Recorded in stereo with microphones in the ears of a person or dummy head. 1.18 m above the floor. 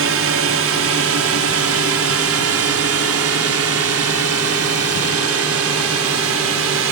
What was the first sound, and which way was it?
A drone, 65° right (ahead or behind).